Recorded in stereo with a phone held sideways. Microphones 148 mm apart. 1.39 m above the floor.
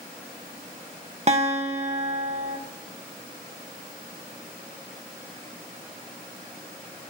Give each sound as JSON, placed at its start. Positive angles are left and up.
{"t": 1.3, "sound": "a guitar", "side_deg": -50, "distance_m": 1.3}